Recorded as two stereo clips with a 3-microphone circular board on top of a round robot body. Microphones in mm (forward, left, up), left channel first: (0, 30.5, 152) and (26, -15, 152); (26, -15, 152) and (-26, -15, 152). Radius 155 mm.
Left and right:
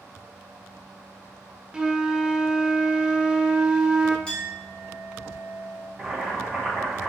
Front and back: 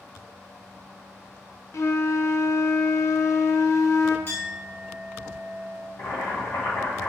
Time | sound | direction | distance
1.7 | a flute | 15° left | 0.6 m
4.3 | a clink | 50° left | 1.6 m
6.0 | boiling | 25° left | 1.5 m